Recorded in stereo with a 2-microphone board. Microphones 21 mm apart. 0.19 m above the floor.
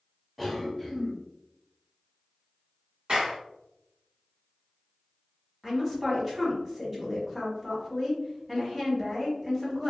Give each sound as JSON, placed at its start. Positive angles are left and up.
{"t": 0.4, "sound": "a cough", "side_deg": -5, "distance_m": 1.2}
{"t": 3.1, "sound": "a clap", "side_deg": -55, "distance_m": 1.8}
{"t": 5.6, "sound": "a woman speaking", "side_deg": -15, "distance_m": 1.7}